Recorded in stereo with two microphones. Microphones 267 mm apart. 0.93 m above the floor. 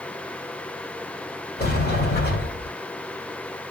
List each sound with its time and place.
1.6 s a sliding door: 40° left (ahead or behind), 1.8 m